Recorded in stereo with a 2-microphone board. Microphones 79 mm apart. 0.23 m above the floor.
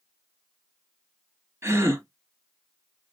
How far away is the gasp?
About 1.3 m.